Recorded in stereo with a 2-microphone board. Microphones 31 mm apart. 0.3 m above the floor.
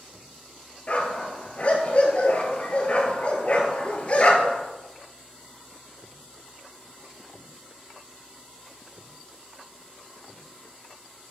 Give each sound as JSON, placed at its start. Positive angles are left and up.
{"t": 0.9, "sound": "a dog barking", "side_deg": 40, "distance_m": 1.8}